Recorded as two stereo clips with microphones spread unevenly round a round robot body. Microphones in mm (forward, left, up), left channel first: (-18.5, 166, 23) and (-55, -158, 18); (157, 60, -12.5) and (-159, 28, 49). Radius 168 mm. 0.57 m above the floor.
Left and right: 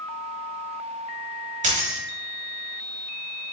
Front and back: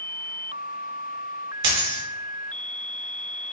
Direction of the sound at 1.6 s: 165° right.